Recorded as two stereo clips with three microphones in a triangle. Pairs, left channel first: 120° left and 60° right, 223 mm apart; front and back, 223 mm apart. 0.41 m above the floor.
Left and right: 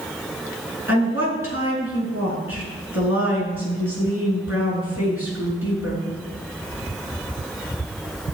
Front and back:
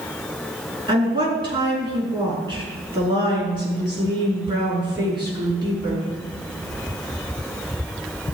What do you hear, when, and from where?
0.9 s a woman speaking: 110° left, 5.5 m